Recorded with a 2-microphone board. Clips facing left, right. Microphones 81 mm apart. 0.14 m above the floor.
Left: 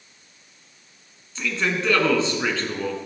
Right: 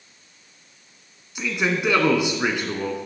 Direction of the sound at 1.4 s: 15° right (ahead or behind).